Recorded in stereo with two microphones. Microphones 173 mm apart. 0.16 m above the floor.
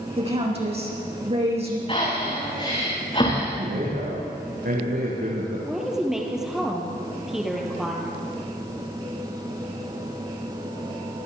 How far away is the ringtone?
No ringtone in this recording.